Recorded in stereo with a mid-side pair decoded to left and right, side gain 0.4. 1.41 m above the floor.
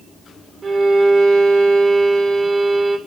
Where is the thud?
No thud in this recording.